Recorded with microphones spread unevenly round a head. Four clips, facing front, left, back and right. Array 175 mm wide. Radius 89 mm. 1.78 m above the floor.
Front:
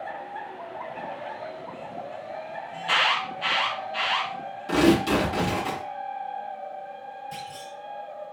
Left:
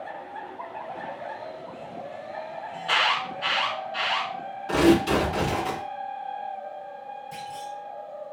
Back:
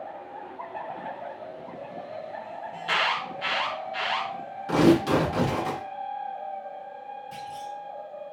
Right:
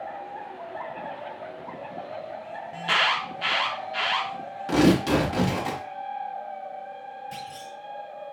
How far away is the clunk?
About 4 m.